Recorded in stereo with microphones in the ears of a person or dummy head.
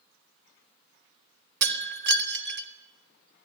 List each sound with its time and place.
1.6 s breaking glass: 60° right (ahead or behind), 2.5 m